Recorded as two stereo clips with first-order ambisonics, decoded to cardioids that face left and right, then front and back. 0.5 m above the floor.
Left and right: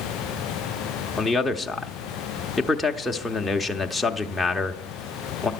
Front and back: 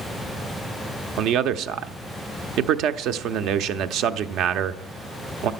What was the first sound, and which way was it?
A man speaking, 175° left.